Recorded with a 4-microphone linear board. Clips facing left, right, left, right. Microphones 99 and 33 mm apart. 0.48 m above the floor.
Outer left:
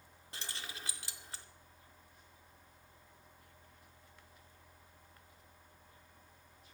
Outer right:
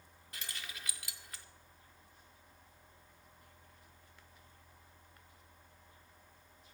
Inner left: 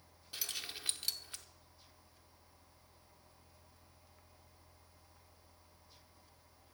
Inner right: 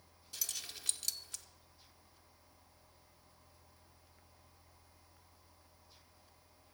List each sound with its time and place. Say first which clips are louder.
0.3 s keys jangling: outer left 1 dB, inner left 2 dB; 30° left (ahead or behind), 0.6 m